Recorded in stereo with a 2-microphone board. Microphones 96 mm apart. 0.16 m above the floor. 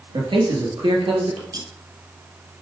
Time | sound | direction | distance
0.1 | a man speaking | 55° right (ahead or behind) | 3 m
1.5 | cutlery clinking | 45° right (ahead or behind) | 1.2 m